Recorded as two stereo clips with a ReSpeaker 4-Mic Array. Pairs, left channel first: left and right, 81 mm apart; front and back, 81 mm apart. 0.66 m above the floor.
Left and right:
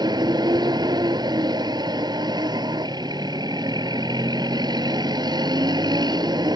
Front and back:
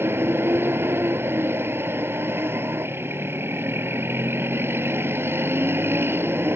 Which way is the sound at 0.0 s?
120° right.